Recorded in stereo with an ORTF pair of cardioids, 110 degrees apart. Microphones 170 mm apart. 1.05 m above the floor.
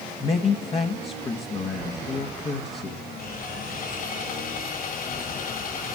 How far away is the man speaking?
About 1.2 m.